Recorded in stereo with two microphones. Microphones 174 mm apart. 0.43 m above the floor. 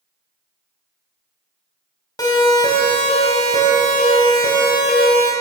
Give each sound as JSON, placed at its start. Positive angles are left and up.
{"t": 2.2, "sound": "a siren", "side_deg": 20, "distance_m": 3.0}